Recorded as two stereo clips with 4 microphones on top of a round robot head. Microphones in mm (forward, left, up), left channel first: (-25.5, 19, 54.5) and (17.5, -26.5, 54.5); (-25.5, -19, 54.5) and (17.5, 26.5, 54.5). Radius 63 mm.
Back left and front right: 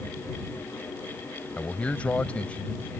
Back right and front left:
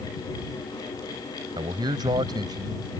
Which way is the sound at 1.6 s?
60° left.